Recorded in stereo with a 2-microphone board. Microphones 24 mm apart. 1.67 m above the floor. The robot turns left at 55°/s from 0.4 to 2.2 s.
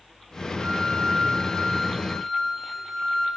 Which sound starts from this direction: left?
A flute, at 0.6 s.